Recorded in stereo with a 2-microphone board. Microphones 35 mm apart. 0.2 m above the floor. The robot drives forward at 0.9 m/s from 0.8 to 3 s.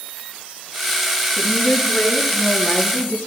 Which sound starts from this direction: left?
A woman speaking, at 1.4 s.